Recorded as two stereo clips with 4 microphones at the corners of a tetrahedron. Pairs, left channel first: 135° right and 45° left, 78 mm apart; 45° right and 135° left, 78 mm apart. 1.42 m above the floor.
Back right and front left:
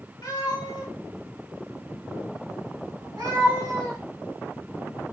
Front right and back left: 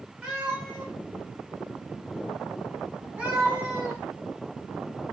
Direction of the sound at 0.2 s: 150° right.